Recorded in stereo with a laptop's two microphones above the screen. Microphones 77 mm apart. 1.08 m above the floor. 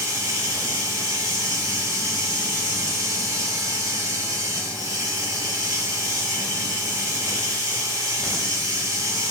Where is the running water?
50° right (ahead or behind), 1.5 m.